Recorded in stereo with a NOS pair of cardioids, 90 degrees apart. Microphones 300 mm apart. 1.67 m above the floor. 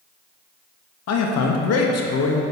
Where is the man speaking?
60° left, 0.8 m.